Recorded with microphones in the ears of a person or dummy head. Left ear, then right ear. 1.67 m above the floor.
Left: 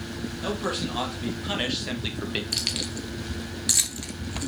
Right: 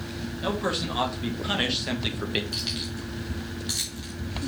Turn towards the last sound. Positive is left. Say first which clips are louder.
# left 3 dB
turn(degrees=30)  # may be behind; listen again after turning